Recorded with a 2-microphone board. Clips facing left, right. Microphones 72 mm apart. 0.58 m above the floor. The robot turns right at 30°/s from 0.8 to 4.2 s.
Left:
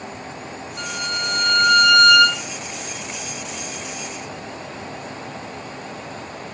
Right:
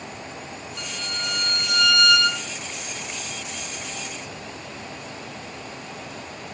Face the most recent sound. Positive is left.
turn(degrees=140)